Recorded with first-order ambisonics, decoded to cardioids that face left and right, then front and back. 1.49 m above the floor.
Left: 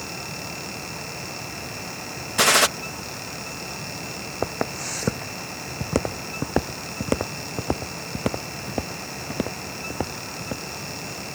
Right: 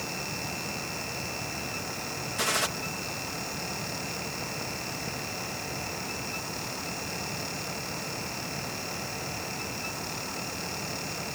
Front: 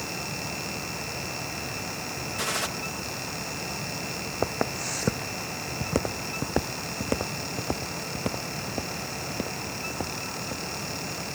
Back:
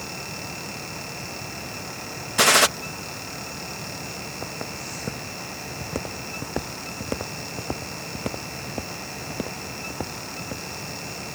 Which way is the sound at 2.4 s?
140° left.